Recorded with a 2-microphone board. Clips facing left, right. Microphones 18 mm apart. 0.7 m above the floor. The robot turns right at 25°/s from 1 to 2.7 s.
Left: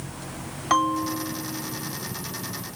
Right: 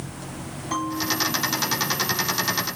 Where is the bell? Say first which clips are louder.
Left 4 dB; 65° left (ahead or behind), 0.9 m; by 1.9 s 45° left (ahead or behind), 0.9 m.